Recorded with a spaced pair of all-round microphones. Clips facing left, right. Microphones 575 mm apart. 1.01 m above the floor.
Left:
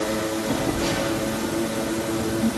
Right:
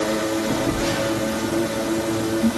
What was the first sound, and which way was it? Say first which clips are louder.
A phone buzzing: right 2 dB; 5° left (ahead or behind).